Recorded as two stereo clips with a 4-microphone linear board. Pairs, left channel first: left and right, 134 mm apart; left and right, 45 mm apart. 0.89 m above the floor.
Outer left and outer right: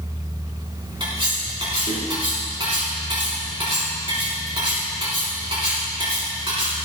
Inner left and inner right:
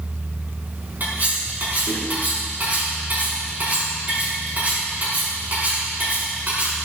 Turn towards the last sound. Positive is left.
turn(degrees=-45)  # may be behind; listen again after turning